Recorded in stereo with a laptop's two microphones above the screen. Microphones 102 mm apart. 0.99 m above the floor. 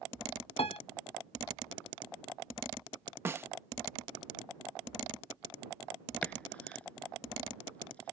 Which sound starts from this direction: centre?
Chopping, at 6.2 s.